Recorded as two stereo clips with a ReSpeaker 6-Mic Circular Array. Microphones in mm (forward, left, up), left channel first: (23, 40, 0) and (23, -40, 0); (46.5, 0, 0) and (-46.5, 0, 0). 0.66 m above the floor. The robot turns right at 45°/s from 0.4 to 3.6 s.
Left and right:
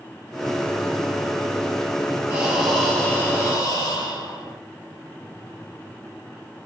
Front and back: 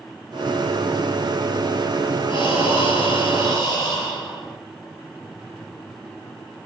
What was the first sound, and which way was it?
Breathing, 15° right.